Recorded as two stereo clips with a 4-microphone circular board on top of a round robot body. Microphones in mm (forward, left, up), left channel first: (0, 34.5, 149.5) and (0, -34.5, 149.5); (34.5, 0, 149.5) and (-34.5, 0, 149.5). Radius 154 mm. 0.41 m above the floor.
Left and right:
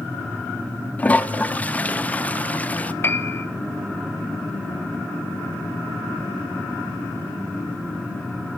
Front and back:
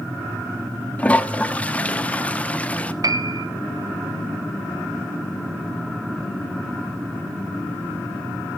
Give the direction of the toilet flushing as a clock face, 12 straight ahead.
10 o'clock.